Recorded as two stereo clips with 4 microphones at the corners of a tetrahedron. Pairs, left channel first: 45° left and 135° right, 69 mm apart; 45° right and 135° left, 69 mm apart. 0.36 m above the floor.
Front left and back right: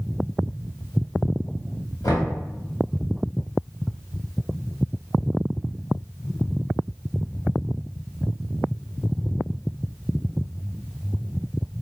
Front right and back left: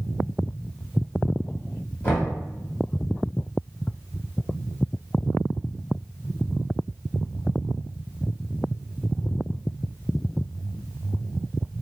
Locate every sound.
2.0 s knocking: 10° left, 1.9 m